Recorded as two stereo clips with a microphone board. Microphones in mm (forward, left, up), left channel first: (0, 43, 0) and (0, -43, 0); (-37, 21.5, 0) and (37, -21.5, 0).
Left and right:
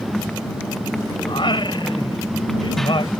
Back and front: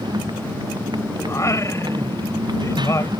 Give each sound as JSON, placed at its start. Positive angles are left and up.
{"t": 0.0, "sound": "a motorcycle", "azimuth_deg": 5}
{"t": 1.3, "sound": "singing", "azimuth_deg": 100}